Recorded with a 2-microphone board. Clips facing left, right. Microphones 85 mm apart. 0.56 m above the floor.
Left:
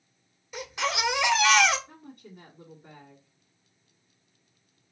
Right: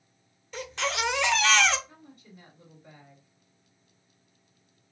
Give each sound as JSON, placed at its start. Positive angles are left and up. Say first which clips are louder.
{"t": 0.5, "sound": "a baby crying", "louder": "left 1 dB", "side_deg": 5, "distance_m": 0.8}
{"t": 1.9, "sound": "a woman speaking", "louder": "left 4 dB", "side_deg": 55, "distance_m": 1.9}